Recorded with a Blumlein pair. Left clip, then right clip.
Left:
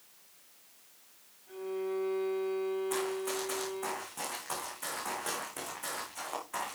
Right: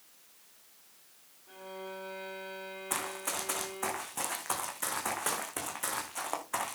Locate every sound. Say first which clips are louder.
1.5 s a violin: left 7 dB; 10° right, 2.5 m
2.9 s running footsteps: left 2 dB; 20° right, 4 m